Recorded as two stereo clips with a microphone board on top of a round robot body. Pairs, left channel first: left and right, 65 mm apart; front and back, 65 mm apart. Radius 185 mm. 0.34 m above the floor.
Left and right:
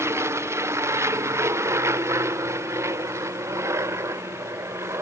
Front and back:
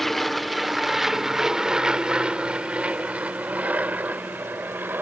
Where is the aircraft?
85° right; by 5.0 s 125° right.